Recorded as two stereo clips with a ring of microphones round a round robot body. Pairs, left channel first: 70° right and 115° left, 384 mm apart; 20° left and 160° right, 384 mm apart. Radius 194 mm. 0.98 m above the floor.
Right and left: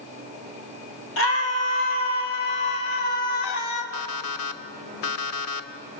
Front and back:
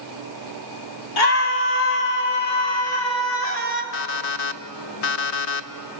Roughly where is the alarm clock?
Ahead.